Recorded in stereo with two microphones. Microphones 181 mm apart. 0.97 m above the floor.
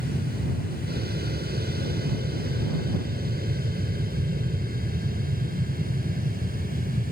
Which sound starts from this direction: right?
An aircraft, at 0.0 s.